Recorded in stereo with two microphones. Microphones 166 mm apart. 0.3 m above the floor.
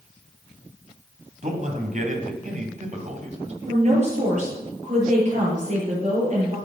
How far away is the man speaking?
About 2.5 m.